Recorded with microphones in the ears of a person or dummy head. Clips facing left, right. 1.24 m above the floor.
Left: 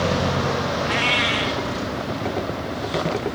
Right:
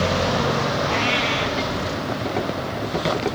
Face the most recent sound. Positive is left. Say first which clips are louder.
# right 1 dB
turn(degrees=30)  # may be behind; listen again after turning